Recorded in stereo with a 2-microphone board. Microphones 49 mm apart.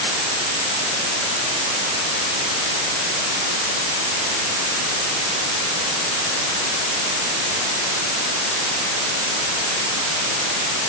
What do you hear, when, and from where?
Only background noise.